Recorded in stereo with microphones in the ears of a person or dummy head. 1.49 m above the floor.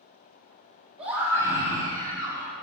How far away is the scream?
About 2 m.